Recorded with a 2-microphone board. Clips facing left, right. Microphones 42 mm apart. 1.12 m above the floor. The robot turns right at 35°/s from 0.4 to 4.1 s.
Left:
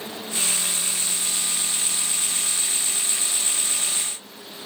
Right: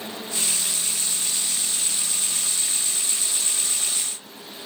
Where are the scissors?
No scissors in this recording.